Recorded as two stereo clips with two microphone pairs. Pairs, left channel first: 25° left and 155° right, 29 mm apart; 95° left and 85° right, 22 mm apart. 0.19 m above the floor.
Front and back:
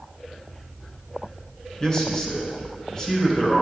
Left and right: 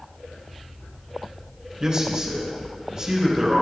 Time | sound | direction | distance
1.8 | a man speaking | 35° right | 2.5 m